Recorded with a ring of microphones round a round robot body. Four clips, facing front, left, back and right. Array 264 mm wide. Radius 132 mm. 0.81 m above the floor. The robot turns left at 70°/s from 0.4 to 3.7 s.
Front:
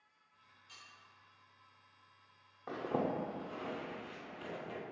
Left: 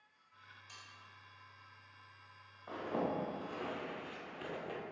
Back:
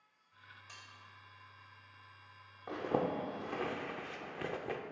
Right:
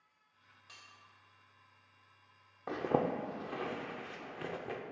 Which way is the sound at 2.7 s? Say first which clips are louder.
Right 5 dB, back 1 dB; 85° right.